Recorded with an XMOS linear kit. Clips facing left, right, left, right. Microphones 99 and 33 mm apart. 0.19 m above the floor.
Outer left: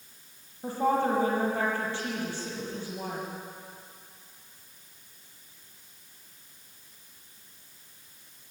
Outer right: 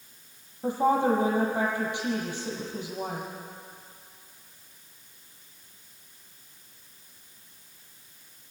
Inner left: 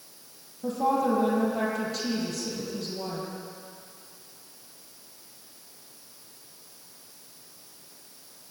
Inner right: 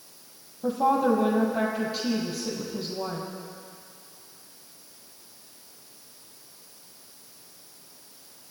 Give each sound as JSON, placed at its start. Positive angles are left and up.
{"t": 0.6, "sound": "a woman speaking", "side_deg": -15, "distance_m": 6.5}